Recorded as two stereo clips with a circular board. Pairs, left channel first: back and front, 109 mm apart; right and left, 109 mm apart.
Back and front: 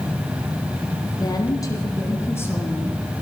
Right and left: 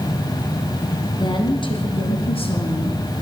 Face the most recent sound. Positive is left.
turn(degrees=-105)